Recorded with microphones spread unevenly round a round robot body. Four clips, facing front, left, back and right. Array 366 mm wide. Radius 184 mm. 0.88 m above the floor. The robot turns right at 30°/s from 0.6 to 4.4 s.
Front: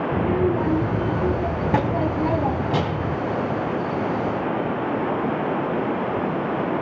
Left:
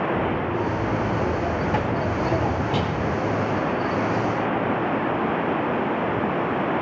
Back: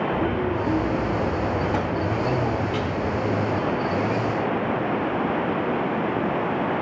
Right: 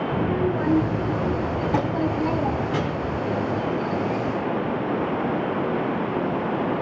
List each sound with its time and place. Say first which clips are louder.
0.1 s a child speaking: right 1 dB, front 3 dB; 30° right, 3.5 m; by 3.2 s 50° left, 3.5 m